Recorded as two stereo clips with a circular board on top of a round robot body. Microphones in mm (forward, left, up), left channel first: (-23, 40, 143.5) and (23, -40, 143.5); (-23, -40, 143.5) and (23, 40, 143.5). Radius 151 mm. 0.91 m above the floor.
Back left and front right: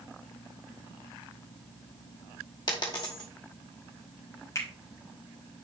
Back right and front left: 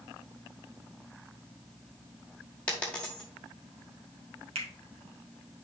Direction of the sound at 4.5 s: 60° left.